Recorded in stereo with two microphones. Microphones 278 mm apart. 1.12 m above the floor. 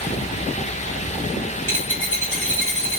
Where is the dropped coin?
60° right (ahead or behind), 1.6 m.